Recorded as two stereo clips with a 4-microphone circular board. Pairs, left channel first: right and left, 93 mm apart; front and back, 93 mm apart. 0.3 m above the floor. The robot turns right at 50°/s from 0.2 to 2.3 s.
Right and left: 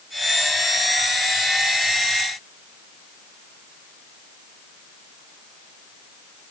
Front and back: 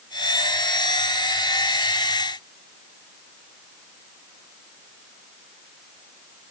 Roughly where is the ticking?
No ticking in this recording.